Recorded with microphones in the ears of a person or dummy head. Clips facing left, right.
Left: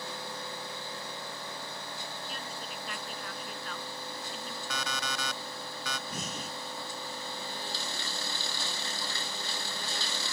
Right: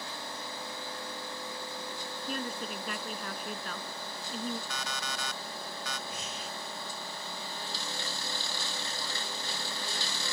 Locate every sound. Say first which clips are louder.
2.3 s a woman speaking: right 6 dB; 55° right (ahead or behind); by 4.6 s 45° right (ahead or behind)
4.7 s an alarm clock: left 2 dB; 60° left (ahead or behind)
6.1 s breathing: left 2 dB; 30° left (ahead or behind)